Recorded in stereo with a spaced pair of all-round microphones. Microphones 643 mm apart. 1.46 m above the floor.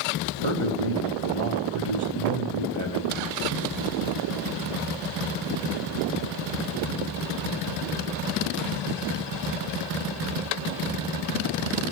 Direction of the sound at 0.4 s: 50° right (ahead or behind).